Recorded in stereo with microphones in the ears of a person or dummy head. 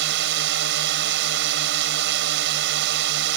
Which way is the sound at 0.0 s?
60° right (ahead or behind).